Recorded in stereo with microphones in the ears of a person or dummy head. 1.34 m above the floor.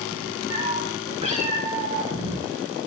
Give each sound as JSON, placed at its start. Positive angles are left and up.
{"t": 0.5, "sound": "a cat meowing", "side_deg": -35, "distance_m": 4.0}